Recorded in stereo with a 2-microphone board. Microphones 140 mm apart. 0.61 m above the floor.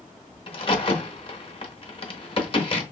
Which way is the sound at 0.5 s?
40° left (ahead or behind).